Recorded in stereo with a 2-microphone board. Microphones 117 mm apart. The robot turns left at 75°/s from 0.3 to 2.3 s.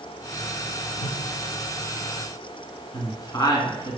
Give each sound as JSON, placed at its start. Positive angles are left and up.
{"t": 1.0, "sound": "a whoosh", "side_deg": 70, "distance_m": 1.3}
{"t": 2.9, "sound": "a woman speaking", "side_deg": 30, "distance_m": 1.7}